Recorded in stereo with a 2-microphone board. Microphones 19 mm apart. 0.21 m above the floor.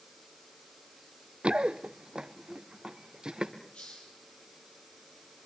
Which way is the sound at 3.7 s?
80° left.